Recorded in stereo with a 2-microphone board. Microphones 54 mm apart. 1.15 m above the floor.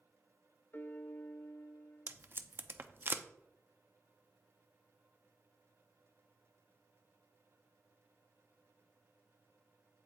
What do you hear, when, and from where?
0.7 s a piano: 40° left (ahead or behind), 0.6 m
2.1 s tape being pulled: 40° right (ahead or behind), 0.6 m